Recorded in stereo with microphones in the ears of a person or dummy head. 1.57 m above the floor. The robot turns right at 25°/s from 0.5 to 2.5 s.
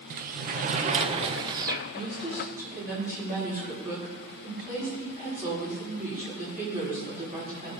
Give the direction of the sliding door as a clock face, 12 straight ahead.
2 o'clock.